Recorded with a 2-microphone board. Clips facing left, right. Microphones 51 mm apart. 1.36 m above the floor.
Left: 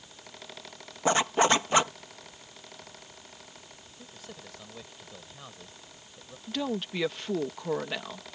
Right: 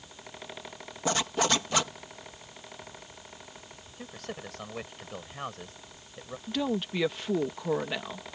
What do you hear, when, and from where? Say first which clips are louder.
1.1 s a zipper: left 4 dB; 30° left (ahead or behind)
4.0 s a man speaking: right 8 dB; 60° right (ahead or behind)
6.5 s a woman speaking: right 2 dB; centre (ahead or behind)